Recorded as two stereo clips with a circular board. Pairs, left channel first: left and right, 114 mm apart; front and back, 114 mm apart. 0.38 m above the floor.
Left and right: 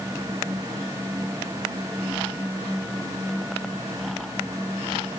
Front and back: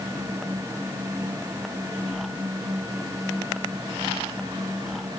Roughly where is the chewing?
I don't hear chewing.